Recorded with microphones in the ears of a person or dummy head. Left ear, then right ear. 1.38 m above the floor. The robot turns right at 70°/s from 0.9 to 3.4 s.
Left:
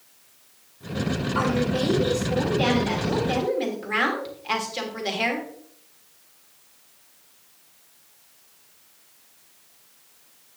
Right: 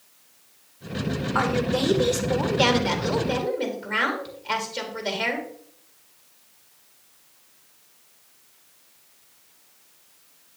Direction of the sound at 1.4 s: 135° right.